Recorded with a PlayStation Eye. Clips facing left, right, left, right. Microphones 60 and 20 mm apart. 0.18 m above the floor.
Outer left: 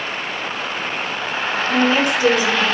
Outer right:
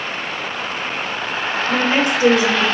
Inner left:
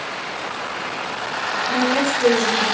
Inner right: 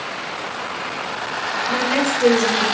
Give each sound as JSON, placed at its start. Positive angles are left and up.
{"t": 1.7, "sound": "a woman speaking", "side_deg": -25, "distance_m": 2.0}